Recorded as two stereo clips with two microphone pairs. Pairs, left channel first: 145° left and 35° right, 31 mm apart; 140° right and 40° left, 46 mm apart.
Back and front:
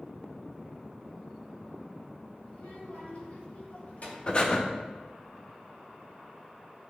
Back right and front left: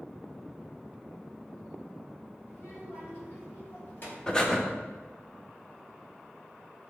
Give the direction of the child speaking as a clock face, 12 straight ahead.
6 o'clock.